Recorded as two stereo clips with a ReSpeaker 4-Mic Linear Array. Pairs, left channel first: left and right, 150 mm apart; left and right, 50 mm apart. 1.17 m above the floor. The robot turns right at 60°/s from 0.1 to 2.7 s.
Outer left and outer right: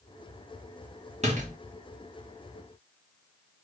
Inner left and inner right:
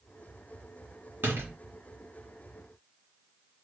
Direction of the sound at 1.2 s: 50° right (ahead or behind).